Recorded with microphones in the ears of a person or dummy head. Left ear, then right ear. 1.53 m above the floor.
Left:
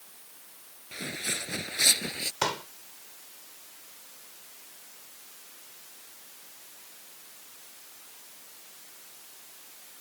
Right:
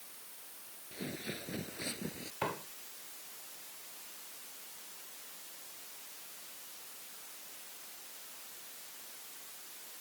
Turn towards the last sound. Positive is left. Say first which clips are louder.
# left 7 dB
turn(degrees=80)